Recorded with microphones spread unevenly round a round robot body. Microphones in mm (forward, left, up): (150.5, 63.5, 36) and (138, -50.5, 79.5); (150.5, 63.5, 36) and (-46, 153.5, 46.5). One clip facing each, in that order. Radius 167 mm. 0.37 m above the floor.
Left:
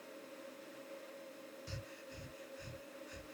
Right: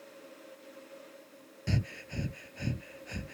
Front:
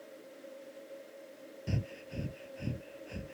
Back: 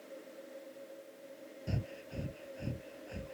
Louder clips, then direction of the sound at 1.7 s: Right 13 dB, front 2 dB; 100° right.